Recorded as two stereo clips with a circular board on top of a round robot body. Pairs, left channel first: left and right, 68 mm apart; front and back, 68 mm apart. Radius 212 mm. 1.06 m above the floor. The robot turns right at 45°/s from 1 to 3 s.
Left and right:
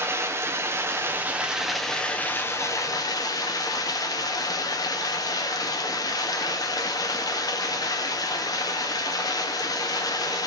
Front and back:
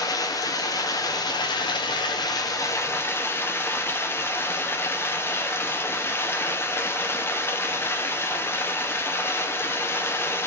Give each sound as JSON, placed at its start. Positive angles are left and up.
{"t": 0.0, "sound": "running water", "azimuth_deg": -35, "distance_m": 1.0}